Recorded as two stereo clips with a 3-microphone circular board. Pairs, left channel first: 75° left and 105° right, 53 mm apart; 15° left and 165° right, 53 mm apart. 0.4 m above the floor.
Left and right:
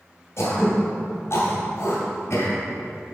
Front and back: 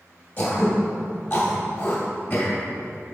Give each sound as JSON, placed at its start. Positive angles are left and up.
{"t": 0.4, "sound": "throat clearing", "azimuth_deg": 55, "distance_m": 2.5}